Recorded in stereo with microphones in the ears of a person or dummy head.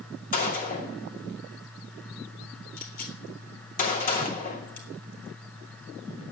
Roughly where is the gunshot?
Left.